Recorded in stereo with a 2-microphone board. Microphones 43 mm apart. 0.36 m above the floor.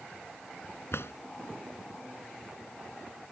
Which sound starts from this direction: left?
A drawer, at 0.9 s.